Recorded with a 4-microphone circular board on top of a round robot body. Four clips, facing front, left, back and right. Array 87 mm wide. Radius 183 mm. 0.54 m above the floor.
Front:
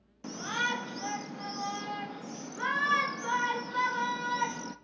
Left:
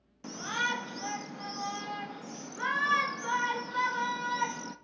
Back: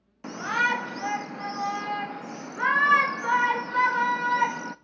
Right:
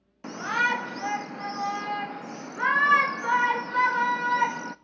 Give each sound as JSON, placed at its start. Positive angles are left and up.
{"t": 0.2, "sound": "a shout", "azimuth_deg": -140, "distance_m": 0.9}